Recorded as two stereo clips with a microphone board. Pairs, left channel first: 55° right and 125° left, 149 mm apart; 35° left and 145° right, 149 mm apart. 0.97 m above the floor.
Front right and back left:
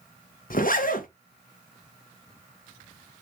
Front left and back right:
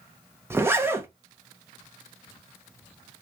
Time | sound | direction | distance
0.5 | a zipper | 70° right | 0.7 m